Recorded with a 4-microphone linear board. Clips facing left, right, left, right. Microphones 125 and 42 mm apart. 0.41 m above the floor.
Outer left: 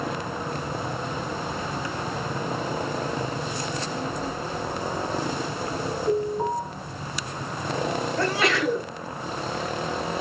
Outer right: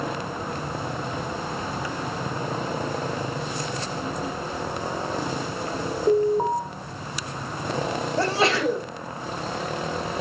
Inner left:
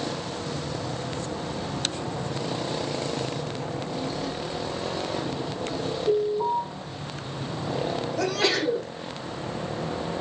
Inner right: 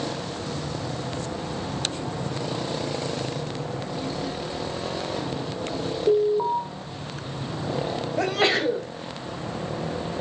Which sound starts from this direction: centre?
A child speaking, at 3.7 s.